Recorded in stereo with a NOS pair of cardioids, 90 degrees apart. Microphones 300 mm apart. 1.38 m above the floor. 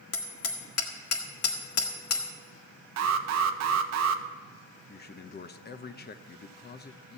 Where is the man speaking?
35° left, 1.0 m.